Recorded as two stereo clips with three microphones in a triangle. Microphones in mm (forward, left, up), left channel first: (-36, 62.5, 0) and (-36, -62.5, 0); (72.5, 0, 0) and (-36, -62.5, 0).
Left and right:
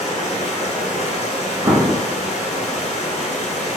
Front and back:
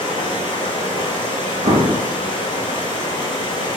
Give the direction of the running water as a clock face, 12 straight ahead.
9 o'clock.